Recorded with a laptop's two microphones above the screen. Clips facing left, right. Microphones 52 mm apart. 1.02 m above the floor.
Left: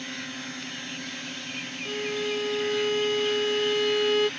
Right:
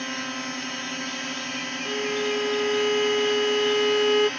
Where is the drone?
60° right (ahead or behind).